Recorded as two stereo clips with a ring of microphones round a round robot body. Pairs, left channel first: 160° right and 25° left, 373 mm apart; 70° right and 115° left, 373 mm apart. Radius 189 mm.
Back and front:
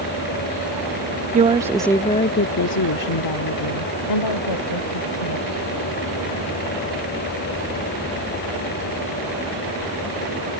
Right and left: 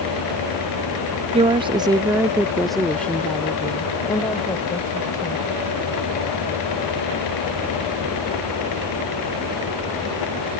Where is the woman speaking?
60° left; by 5.5 s 145° right.